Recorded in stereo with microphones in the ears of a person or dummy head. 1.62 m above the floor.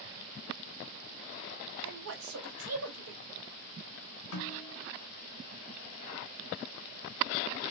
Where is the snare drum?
70° left (ahead or behind), 1.3 m.